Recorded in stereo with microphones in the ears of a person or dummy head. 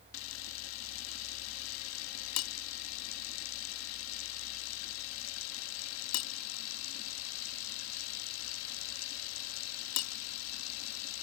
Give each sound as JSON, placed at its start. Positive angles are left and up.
{"t": 0.1, "sound": "a camera shutter", "side_deg": 80}